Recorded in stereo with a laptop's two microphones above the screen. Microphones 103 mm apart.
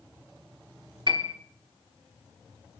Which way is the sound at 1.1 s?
50° right (ahead or behind).